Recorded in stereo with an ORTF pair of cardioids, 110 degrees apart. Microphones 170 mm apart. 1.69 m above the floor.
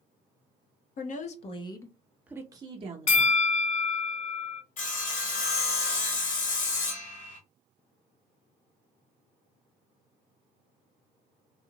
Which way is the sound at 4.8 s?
50° left.